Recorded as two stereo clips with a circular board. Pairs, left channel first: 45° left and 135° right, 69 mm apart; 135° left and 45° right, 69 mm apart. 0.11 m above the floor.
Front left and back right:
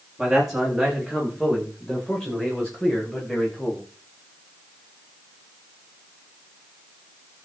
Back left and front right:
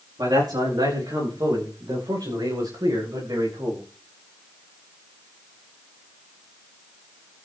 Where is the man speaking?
50° right, 9 m; by 3.9 s 30° right, 11 m.